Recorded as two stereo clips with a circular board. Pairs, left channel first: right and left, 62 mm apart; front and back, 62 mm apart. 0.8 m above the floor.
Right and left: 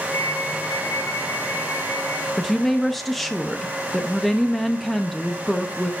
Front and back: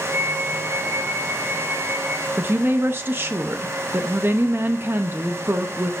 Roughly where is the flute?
Behind right.